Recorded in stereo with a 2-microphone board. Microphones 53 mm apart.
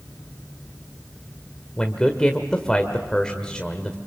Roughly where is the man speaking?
Centre.